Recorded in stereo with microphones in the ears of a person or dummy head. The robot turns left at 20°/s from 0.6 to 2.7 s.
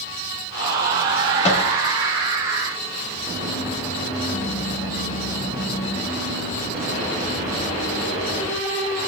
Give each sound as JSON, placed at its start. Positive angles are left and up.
{"t": 1.4, "sound": "a microwave", "side_deg": 30, "distance_m": 1.4}